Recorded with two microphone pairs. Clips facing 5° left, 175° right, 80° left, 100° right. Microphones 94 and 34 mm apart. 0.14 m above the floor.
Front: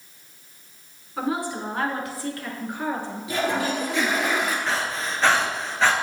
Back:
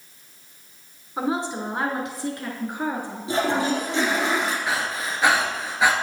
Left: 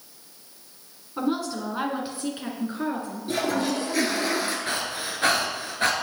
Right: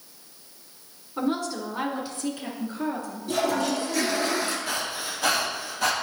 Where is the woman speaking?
165° left, 1.3 m; by 4.3 s 110° left, 2.5 m.